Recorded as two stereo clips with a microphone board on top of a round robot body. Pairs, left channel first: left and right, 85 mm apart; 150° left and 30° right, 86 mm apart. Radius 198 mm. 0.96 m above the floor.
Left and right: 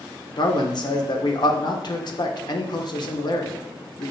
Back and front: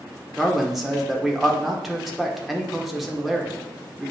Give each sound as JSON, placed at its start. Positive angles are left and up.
{"t": 0.4, "sound": "a man speaking", "azimuth_deg": 60, "distance_m": 0.7}